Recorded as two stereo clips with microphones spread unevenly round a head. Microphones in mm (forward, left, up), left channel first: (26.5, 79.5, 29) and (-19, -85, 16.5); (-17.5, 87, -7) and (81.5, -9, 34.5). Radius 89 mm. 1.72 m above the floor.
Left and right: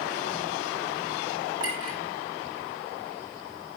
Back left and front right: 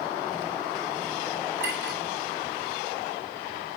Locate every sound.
1.6 s a clink: 40° right, 10 m